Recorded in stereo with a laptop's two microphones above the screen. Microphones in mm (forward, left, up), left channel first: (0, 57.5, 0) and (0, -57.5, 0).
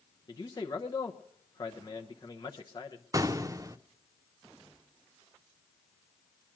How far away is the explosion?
About 0.5 m.